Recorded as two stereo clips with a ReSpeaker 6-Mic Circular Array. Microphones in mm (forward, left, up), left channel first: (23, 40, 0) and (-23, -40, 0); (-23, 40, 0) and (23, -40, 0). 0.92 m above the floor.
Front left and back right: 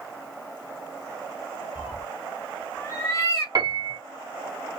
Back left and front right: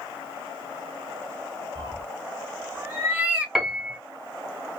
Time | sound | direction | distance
1.8 | a cat meowing | 50° right | 0.6 m
3.5 | a piano | 145° right | 0.6 m